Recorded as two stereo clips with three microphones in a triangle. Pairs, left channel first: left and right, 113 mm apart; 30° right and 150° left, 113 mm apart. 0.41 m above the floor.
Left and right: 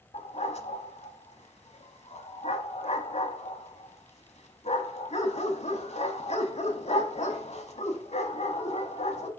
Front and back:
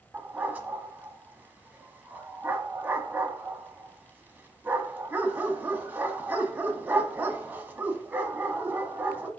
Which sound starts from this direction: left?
A dog barking, at 0.1 s.